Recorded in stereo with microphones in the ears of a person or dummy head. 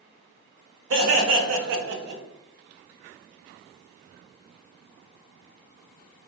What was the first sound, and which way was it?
Laughter, 60° right (ahead or behind).